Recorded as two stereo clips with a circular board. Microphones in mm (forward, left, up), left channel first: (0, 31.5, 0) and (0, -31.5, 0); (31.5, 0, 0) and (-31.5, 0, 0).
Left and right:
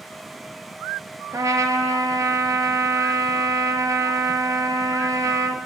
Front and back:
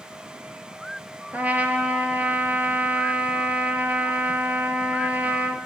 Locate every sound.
1.3 s a trumpet: 115° right, 0.6 m